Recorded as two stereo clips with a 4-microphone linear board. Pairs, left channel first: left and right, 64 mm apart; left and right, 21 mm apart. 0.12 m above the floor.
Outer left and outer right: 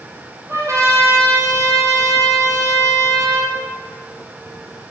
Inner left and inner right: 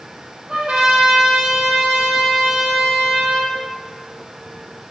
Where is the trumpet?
50° right (ahead or behind), 3.5 m.